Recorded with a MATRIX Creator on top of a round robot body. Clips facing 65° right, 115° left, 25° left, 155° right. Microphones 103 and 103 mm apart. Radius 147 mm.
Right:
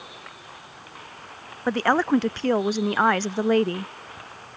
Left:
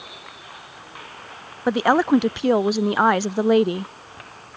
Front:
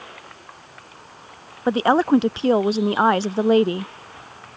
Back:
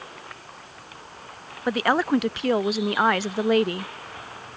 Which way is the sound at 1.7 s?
50° left.